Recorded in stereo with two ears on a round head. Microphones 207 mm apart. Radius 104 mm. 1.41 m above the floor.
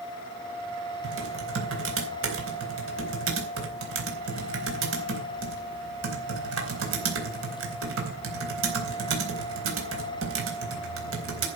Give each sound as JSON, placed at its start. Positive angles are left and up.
{"t": 1.0, "sound": "typing on a keyboard", "side_deg": -60, "distance_m": 4.0}